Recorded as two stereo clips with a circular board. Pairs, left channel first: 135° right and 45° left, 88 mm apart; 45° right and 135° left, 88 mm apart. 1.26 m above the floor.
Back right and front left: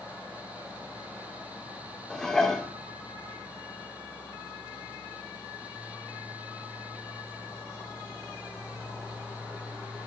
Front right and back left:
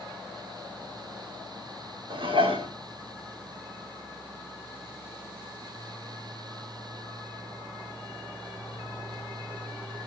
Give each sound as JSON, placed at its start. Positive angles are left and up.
{"t": 2.1, "sound": "dishes clattering", "azimuth_deg": 140, "distance_m": 2.0}